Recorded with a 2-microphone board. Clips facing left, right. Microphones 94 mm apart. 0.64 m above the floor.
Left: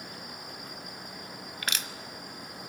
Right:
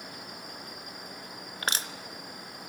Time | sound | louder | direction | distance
1.6 | crushing | right 3 dB | 35° right (ahead or behind) | 1.0 m